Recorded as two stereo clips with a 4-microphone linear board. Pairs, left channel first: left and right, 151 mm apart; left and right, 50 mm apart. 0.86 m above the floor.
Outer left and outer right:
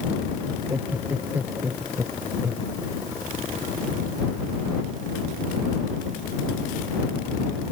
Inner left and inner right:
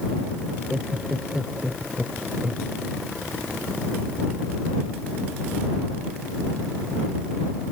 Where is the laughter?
15° right (ahead or behind).